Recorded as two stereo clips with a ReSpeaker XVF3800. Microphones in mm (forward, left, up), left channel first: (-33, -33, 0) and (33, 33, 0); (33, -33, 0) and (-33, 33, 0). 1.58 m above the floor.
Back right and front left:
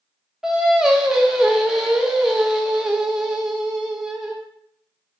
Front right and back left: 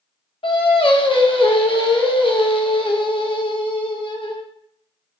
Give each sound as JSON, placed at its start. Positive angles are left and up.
{"t": 0.4, "sound": "singing", "azimuth_deg": -40, "distance_m": 0.6}